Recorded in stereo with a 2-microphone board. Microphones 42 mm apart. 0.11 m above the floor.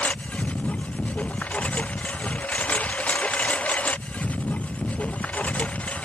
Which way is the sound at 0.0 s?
35° left (ahead or behind).